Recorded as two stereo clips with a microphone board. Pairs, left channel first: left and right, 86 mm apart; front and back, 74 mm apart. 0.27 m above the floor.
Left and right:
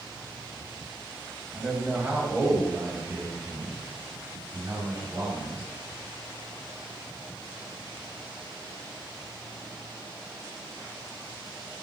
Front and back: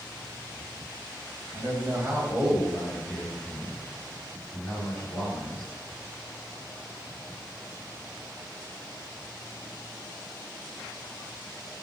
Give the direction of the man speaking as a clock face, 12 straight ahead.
6 o'clock.